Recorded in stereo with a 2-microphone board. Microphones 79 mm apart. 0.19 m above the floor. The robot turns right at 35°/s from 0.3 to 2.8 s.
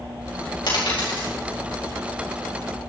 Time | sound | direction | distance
0.7 | a dropped coin | 70° left (ahead or behind) | 4.5 m